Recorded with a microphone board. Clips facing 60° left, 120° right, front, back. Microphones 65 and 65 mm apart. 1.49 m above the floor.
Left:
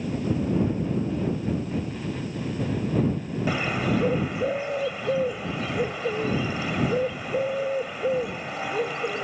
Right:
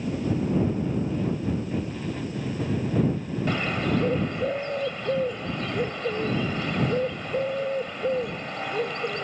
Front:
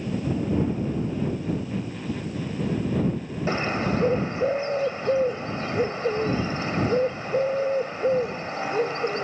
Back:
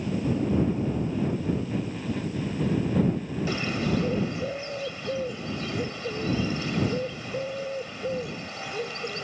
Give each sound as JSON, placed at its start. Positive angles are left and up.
{"t": 3.5, "sound": "a bird", "azimuth_deg": -20}